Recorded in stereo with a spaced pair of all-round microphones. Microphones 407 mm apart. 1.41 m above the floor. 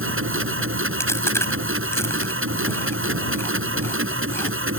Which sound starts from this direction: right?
A machine running, at 0.0 s.